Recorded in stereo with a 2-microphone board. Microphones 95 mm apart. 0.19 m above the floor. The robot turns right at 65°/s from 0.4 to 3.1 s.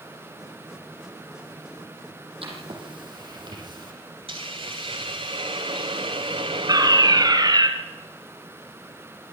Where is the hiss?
80° right, 3 m.